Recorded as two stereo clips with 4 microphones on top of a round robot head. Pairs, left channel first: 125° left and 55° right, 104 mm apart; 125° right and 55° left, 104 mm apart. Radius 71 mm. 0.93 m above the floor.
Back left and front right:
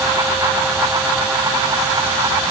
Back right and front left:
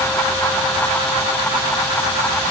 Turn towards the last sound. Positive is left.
No sound to turn to.